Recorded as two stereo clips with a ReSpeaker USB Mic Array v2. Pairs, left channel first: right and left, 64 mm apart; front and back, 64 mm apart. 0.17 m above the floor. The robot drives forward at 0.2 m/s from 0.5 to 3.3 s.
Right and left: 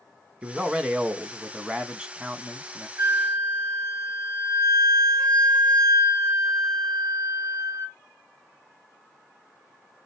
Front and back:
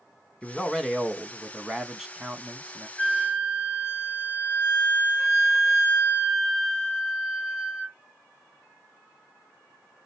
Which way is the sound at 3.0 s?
65° left.